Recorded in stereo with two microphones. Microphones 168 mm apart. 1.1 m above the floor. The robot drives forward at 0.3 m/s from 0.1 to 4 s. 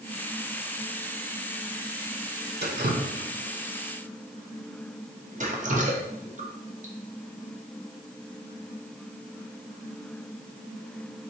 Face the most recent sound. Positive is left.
turn(degrees=-50)  # may be behind; listen again after turning